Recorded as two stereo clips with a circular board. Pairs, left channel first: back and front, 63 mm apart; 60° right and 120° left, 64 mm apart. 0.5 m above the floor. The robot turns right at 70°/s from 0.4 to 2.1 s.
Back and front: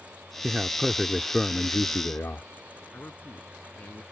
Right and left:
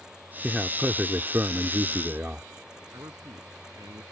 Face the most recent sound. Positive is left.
turn(degrees=125)